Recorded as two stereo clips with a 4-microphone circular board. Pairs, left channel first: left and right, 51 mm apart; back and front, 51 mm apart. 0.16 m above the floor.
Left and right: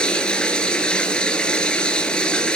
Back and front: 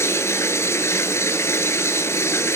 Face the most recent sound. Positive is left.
turn(degrees=160)